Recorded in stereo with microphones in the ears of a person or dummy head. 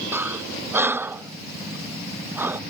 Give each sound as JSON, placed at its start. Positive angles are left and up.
{"t": 0.1, "sound": "breathing", "side_deg": -10}